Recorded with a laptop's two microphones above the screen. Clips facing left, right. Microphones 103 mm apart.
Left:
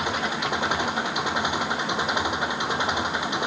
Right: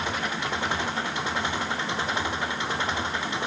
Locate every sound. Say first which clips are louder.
0.0 s an engine running: left 3 dB; 15° left (ahead or behind)